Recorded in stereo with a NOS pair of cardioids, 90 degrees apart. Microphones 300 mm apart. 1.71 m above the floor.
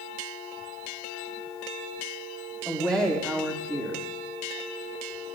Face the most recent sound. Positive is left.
turn(degrees=-10)